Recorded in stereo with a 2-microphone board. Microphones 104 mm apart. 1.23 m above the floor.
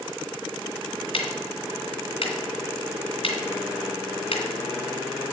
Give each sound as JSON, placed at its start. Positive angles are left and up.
{"t": 1.1, "sound": "ticking", "side_deg": 65, "distance_m": 2.5}